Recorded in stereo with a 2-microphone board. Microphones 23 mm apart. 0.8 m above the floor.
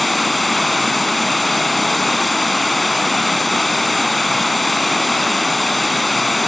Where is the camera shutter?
I don't hear a camera shutter.